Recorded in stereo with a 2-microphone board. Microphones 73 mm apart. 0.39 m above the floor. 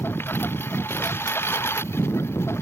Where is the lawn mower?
30° left (ahead or behind); by 2.6 s 35° left (ahead or behind).